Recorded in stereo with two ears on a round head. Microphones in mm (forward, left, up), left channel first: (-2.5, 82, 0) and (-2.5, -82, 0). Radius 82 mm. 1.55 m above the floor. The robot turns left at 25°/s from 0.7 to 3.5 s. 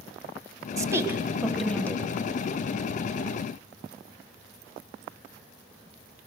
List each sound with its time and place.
0.8 s a woman speaking: 20° right (ahead or behind), 1.5 m; by 2.0 s 15° left (ahead or behind), 1.5 m